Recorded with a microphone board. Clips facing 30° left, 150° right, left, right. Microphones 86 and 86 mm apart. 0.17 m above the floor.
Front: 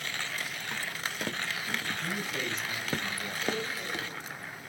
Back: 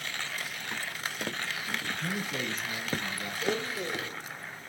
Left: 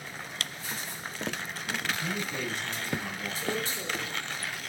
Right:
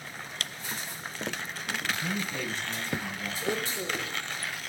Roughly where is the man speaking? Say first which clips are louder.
Back 1 dB, right 2 dB; behind.